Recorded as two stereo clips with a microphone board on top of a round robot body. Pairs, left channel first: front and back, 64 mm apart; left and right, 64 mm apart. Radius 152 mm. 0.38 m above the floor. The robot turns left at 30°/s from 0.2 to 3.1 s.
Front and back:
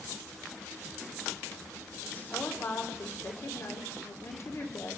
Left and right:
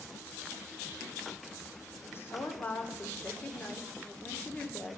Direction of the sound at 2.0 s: 55° left.